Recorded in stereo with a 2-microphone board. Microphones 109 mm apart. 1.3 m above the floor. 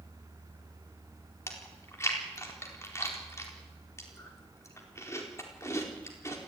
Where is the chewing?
25° left (ahead or behind), 4 m.